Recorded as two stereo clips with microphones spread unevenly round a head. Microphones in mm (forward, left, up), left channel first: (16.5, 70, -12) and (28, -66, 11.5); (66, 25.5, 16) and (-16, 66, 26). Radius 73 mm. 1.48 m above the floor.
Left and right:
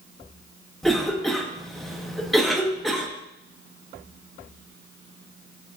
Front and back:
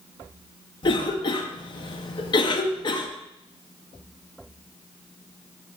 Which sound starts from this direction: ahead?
A cough, at 0.8 s.